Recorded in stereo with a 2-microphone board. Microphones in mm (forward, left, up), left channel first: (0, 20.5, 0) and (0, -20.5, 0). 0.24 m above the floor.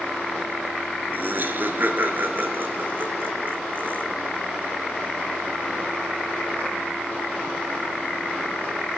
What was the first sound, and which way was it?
Laughter, 55° right (ahead or behind).